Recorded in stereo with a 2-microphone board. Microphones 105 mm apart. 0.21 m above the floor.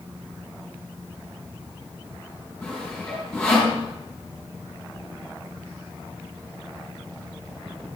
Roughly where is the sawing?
Centre.